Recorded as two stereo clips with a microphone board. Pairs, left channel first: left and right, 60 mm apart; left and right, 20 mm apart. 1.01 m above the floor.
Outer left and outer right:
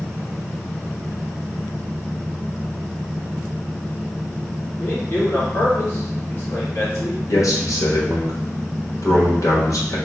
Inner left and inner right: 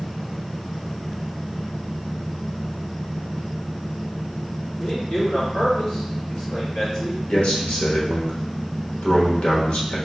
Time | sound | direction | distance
4.8 | a man speaking | 35° left (ahead or behind) | 1.7 m
7.3 | a man speaking | 65° left (ahead or behind) | 1.1 m